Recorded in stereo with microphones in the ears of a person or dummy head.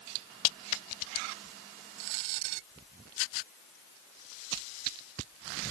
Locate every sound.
Only background noise.